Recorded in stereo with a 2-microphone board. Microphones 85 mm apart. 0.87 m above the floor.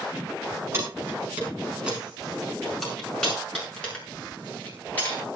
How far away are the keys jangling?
About 5 m.